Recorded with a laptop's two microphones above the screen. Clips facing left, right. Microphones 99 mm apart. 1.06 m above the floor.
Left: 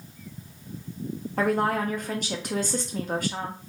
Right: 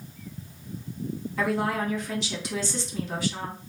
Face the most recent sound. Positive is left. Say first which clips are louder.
# left 3 dB
turn(degrees=50)  # may be behind; listen again after turning